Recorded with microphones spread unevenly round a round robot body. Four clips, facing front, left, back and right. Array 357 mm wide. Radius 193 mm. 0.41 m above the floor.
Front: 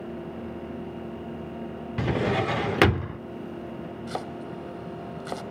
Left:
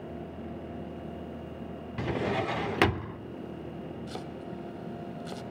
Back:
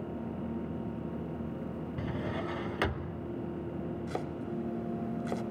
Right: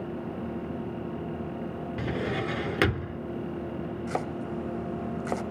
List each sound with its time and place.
2.0 s a drawer: straight ahead, 0.6 m
4.1 s chopping: 50° right, 1.3 m